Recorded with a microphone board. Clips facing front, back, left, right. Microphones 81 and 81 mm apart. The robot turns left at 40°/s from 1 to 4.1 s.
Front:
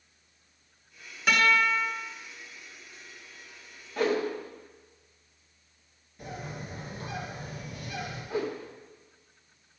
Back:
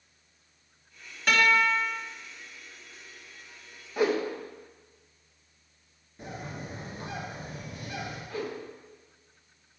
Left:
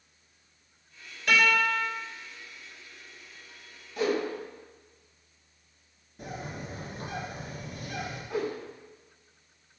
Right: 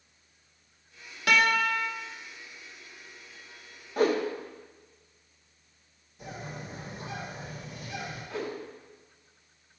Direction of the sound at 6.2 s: 125° left.